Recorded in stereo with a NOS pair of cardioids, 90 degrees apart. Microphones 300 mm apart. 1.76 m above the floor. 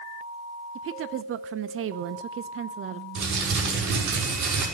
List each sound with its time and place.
0.8 s a woman speaking: 45° right, 0.5 m
3.1 s crumpling: 70° right, 6 m